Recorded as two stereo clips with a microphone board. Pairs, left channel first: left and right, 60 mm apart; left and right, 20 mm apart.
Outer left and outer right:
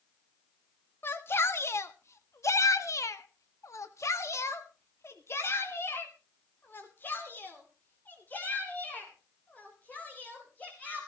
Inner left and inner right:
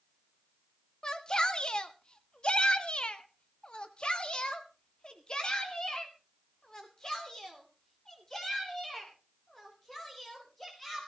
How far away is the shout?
About 1.7 m.